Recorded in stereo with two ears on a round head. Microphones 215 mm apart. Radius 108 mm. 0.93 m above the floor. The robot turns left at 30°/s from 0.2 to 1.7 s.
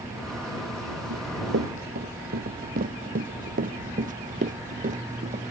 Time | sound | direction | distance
1.1 | running footsteps | 60° right (ahead or behind) | ?